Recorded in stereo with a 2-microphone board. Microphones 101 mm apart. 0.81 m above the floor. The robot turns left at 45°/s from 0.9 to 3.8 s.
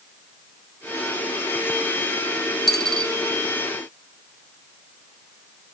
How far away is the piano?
I don't hear a piano.